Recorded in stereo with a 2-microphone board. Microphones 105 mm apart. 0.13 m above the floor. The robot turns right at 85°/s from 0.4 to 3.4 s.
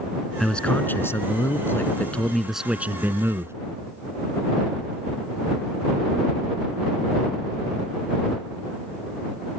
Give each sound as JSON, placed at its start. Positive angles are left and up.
{"t": 0.4, "sound": "a man speaking", "side_deg": 5}